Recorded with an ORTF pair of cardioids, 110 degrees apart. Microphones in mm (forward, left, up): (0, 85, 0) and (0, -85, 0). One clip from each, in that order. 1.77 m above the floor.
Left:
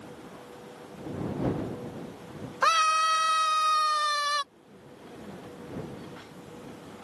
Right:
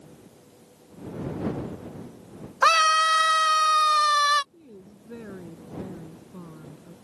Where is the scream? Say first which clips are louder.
Right 4 dB; 25° right.